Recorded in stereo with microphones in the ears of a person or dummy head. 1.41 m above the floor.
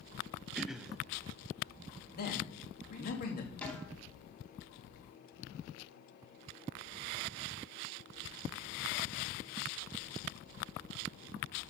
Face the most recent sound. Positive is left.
turn(degrees=5)  # may be behind; listen again after turning